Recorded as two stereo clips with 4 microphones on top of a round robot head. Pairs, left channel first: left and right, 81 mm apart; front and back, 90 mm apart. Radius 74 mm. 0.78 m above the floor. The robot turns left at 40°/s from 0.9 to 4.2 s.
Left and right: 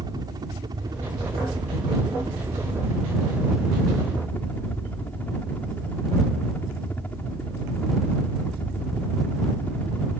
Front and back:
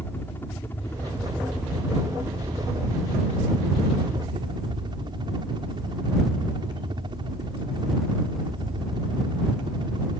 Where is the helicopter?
70° right; by 10.2 s 160° left.